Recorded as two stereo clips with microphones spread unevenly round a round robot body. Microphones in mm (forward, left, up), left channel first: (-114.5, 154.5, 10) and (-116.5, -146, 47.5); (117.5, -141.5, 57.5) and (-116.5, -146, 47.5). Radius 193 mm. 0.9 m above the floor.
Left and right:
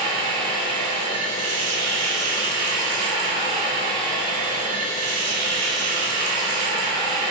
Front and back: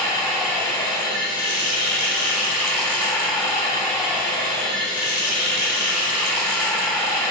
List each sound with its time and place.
0.0 s running water: 80° right, 2.5 m